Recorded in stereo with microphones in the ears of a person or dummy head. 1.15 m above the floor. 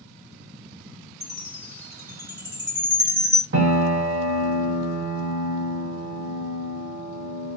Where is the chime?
10° right (ahead or behind), 0.7 m.